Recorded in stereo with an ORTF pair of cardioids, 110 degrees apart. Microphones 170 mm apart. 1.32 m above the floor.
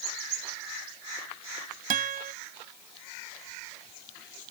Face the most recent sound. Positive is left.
turn(degrees=-55)